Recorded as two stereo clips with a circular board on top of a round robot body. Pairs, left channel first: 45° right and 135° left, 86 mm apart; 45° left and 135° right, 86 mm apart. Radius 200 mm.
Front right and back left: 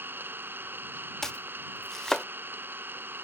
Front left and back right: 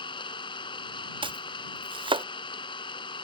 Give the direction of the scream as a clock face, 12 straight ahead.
I don't hear a scream.